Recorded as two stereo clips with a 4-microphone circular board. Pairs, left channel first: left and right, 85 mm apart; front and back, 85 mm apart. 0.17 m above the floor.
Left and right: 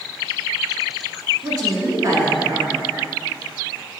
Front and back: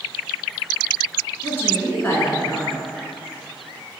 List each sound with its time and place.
1.4 s a woman speaking: 60° right, 1.7 m